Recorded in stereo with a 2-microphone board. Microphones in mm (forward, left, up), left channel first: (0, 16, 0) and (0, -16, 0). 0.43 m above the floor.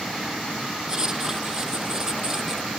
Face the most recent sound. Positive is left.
turn(degrees=-20)  # may be behind; listen again after turning